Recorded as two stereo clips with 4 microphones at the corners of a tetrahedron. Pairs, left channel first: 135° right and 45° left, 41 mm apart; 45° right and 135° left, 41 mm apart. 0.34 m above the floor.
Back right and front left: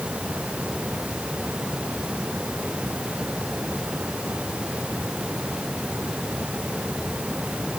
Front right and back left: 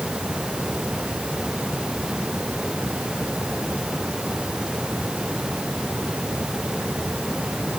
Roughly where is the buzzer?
I don't hear a buzzer.